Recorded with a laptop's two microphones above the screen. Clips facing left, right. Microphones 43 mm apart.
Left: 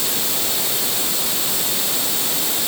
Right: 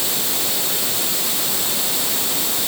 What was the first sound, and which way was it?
Only background noise.